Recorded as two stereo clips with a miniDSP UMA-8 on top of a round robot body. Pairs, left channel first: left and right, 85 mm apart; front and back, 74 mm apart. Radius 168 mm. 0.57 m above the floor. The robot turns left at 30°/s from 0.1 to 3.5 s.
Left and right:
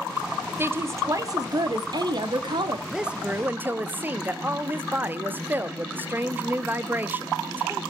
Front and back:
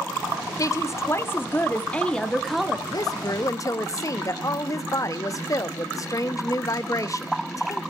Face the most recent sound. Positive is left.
turn(degrees=-25)